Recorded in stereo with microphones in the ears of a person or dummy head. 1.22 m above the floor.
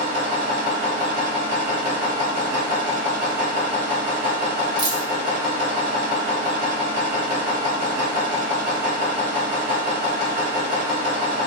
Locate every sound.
0.0 s a machine running: 35° right (ahead or behind), 1.4 m
4.8 s a dropped coin: 25° right (ahead or behind), 1.1 m